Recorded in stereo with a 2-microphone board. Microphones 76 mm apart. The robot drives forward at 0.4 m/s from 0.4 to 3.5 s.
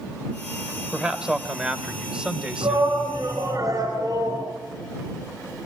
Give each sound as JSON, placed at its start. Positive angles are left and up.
{"t": 0.9, "sound": "a man speaking", "side_deg": -10, "distance_m": 2.5}
{"t": 2.6, "sound": "a shout", "side_deg": -55, "distance_m": 4.5}